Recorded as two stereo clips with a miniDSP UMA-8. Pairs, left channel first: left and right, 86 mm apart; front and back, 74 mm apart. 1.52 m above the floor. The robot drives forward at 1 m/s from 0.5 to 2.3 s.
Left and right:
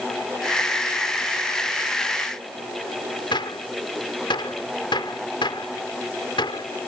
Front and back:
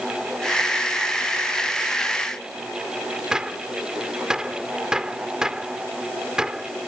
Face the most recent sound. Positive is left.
turn(degrees=100)